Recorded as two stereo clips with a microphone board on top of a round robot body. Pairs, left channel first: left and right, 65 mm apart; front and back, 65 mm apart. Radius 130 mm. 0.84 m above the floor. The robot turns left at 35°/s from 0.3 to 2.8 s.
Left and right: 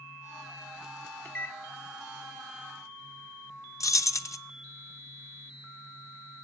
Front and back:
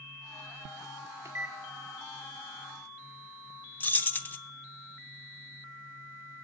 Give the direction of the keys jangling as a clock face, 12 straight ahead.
10 o'clock.